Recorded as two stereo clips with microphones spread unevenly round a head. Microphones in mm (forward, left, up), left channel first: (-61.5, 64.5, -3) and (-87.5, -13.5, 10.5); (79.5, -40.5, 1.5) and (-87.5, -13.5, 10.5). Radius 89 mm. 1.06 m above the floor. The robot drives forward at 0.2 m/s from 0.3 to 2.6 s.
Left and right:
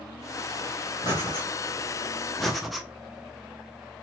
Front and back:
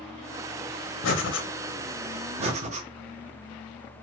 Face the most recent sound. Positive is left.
turn(degrees=150)